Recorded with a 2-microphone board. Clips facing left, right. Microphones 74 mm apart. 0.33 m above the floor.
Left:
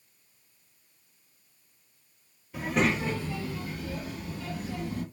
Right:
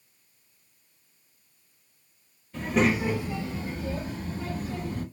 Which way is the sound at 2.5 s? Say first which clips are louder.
Right 3 dB; 10° left (ahead or behind).